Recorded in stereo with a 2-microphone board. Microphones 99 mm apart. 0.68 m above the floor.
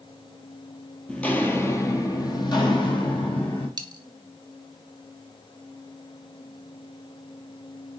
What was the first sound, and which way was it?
Footsteps, 10° left (ahead or behind).